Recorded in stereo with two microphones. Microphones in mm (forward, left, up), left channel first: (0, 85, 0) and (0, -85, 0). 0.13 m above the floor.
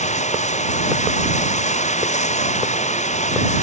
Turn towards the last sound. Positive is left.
turn(degrees=45)  # may be behind; listen again after turning